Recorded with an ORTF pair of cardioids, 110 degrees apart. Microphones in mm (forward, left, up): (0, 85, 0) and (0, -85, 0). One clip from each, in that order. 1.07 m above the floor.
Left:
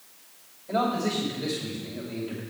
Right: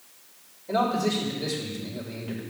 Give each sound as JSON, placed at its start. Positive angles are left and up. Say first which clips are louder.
{"t": 0.7, "sound": "a man speaking", "louder": "right 2 dB", "azimuth_deg": -35, "distance_m": 5.5}